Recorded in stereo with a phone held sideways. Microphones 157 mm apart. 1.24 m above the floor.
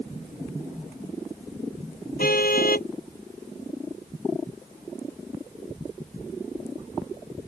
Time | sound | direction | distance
2.2 | a car horn | 70° left (ahead or behind) | ?